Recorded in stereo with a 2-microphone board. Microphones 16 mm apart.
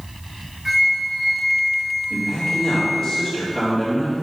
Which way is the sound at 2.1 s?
35° left (ahead or behind).